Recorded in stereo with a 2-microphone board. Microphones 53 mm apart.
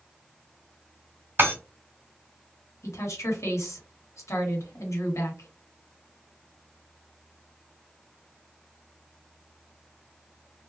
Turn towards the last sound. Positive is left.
turn(degrees=70)  # may be behind; listen again after turning